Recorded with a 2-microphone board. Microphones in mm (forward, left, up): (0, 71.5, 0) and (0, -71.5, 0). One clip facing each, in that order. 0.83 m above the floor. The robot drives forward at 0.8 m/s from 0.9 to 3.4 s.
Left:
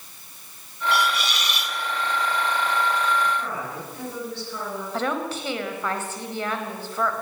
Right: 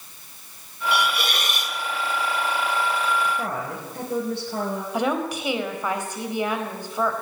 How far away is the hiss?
About 1.7 m.